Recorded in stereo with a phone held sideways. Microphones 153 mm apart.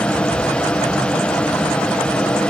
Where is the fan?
5° left (ahead or behind), 2.0 m.